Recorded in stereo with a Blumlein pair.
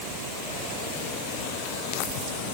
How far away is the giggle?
No giggle in this recording.